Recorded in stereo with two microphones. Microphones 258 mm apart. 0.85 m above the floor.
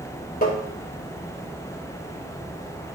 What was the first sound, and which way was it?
Tapping, 35° left (ahead or behind).